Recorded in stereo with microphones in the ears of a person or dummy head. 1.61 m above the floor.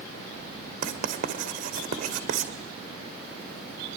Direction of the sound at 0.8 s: 50° right (ahead or behind).